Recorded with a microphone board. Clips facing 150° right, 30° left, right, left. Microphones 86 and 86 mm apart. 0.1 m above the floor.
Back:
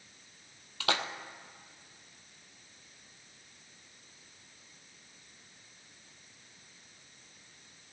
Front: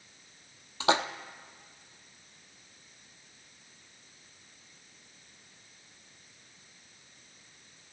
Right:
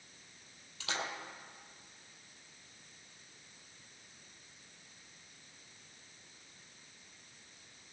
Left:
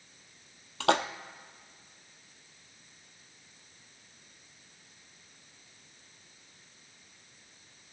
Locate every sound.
0.8 s a splash: 95° left, 0.7 m